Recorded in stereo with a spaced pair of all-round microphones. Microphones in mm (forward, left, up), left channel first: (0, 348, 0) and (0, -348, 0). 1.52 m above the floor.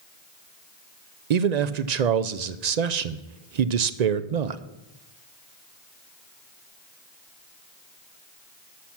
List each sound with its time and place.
1.3 s a man speaking: 70° right (ahead or behind), 0.7 m